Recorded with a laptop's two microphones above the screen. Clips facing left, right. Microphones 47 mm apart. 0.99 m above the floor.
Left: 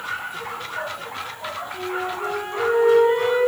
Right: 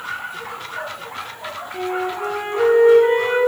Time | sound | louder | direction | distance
1.7 | a flute | right 5 dB | 55° right (ahead or behind) | 6 m